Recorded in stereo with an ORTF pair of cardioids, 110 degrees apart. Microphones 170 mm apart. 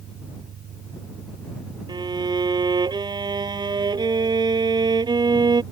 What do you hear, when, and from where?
0.0 s an engine running: 50° right
1.9 s a violin: 25° right